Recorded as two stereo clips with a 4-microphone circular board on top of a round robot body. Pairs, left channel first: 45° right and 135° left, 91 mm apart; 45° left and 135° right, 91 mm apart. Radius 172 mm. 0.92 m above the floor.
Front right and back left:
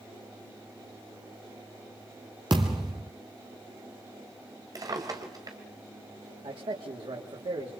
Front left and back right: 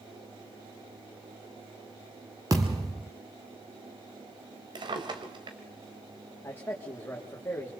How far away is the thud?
About 1.0 m.